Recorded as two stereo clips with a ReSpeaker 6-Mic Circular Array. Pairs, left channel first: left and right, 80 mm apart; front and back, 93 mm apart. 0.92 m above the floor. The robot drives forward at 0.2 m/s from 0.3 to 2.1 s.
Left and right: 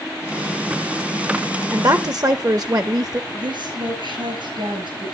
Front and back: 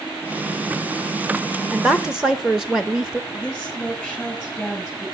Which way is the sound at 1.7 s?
90° right.